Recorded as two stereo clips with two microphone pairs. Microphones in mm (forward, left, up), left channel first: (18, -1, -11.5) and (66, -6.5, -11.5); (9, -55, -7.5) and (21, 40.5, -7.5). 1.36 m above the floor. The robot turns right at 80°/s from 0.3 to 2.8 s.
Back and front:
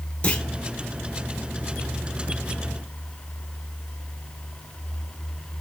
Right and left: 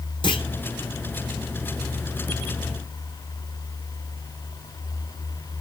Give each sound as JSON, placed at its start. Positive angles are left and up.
{"t": 0.2, "sound": "a clunk", "azimuth_deg": -125, "distance_m": 1.1}